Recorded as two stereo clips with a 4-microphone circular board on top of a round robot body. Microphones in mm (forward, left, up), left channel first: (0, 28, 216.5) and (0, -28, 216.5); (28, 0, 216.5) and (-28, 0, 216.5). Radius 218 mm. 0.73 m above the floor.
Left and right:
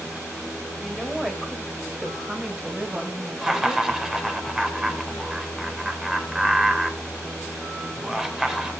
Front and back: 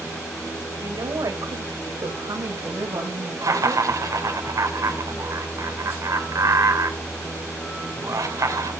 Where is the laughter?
170° right, 3 m.